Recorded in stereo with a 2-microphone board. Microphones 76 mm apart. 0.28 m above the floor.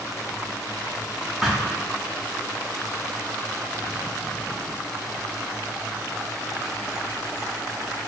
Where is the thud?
Centre (ahead or behind), 4 m.